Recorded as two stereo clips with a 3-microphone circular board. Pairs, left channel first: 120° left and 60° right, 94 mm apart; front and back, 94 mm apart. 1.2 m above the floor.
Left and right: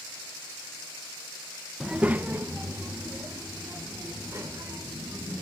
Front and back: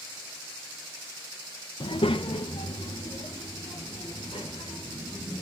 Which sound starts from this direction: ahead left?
A child speaking, at 1.8 s.